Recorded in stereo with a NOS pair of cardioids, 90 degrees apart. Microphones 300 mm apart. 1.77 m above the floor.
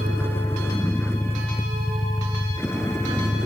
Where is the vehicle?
5° left; by 3.5 s 10° left.